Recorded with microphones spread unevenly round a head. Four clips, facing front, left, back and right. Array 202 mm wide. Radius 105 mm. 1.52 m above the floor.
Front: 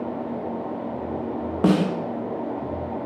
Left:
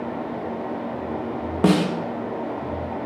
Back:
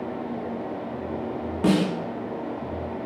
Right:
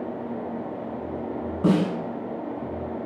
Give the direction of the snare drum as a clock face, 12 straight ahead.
10 o'clock.